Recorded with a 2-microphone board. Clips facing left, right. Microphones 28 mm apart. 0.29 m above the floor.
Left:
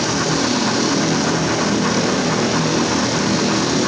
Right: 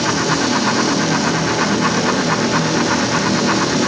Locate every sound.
Only background noise.